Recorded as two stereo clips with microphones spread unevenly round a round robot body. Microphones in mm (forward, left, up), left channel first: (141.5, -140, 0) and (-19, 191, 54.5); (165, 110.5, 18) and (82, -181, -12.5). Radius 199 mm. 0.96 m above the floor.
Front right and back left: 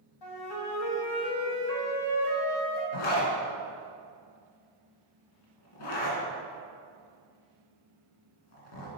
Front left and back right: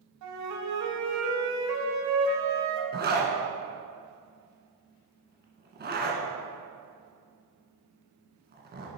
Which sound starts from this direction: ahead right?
A zipper, at 2.9 s.